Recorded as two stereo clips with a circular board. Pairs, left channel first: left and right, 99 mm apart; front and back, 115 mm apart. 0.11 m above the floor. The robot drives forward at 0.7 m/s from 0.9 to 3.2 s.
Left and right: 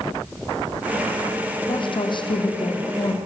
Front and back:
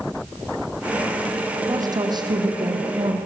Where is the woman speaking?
125° left, 4.5 m; by 3.1 s 135° left, 5 m.